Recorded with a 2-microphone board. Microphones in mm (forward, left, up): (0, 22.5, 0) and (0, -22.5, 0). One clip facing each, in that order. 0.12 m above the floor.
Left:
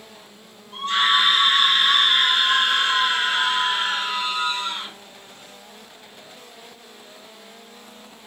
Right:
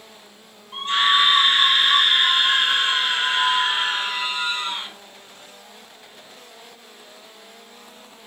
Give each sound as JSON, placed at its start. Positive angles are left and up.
{"t": 0.7, "sound": "a scream", "side_deg": -25, "distance_m": 2.0}